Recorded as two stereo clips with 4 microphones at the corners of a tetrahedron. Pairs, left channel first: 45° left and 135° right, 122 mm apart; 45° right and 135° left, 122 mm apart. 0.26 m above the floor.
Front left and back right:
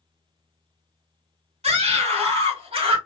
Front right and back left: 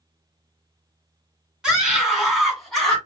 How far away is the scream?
About 2.5 m.